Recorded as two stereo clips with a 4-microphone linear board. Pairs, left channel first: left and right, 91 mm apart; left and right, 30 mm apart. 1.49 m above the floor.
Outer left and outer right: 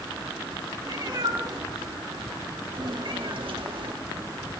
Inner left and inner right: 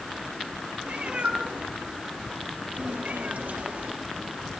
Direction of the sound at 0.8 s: 45° right (ahead or behind).